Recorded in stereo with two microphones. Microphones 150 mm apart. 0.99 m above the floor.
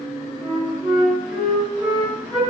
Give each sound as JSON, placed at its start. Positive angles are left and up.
{"t": 0.4, "sound": "a flute", "side_deg": 0, "distance_m": 1.8}